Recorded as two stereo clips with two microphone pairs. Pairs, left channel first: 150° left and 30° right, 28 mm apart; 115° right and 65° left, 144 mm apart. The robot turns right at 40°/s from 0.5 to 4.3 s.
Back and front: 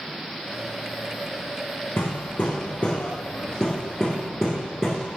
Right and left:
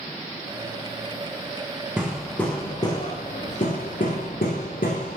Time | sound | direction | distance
2.0 | hammering | 150° left | 4.5 m